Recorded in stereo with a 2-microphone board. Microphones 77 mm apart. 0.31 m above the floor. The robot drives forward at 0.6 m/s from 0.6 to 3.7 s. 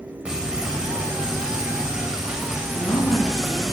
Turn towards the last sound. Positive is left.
turn(degrees=50)  # may be behind; listen again after turning